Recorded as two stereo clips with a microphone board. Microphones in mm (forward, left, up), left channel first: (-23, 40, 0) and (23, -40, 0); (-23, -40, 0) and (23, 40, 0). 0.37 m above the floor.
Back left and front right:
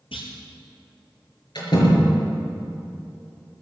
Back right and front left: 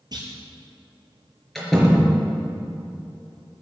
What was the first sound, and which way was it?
A clunk, 105° left.